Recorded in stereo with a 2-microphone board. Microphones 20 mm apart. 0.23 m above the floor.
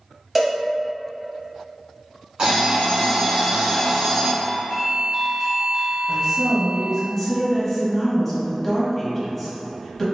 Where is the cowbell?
5° right (ahead or behind), 0.8 m.